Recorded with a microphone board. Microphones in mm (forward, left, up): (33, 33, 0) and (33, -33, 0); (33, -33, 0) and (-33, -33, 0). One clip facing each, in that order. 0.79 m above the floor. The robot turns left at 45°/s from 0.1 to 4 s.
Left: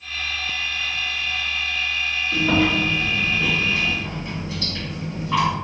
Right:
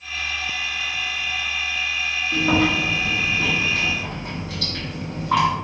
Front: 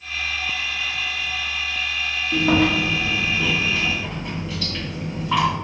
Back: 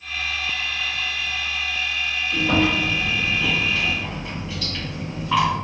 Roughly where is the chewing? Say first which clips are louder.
Even, front 2 dB; ahead.